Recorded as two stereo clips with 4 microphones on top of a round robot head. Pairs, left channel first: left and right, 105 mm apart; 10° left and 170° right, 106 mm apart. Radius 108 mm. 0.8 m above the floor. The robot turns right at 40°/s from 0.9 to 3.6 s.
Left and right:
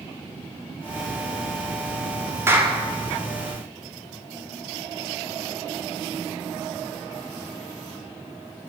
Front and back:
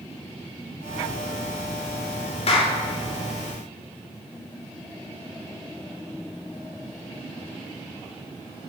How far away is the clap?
About 3 m.